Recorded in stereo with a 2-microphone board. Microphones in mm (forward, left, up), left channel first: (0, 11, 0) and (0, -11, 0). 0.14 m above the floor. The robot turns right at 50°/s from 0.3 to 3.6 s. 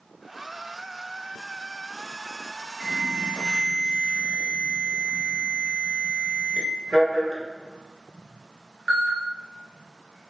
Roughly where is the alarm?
Right.